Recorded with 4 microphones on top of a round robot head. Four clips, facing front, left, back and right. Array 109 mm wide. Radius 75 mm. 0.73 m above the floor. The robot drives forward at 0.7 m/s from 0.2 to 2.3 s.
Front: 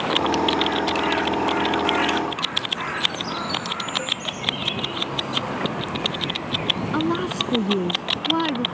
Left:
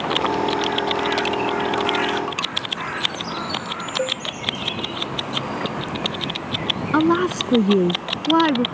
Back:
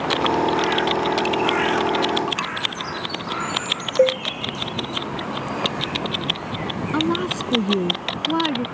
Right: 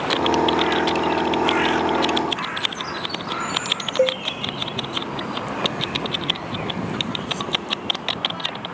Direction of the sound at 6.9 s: 95° left.